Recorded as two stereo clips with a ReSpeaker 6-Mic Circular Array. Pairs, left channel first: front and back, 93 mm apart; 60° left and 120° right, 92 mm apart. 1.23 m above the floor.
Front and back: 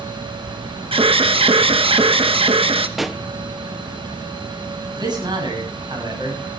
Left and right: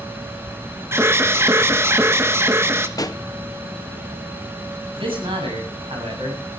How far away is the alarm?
About 1.1 m.